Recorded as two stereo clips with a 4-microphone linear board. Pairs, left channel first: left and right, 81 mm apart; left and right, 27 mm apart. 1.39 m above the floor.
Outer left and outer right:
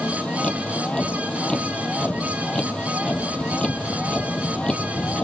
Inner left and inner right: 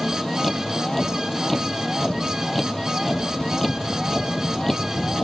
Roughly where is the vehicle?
Centre.